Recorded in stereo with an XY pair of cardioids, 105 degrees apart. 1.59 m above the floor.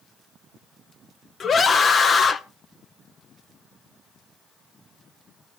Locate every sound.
1.4 s a scream: 40° left, 0.8 m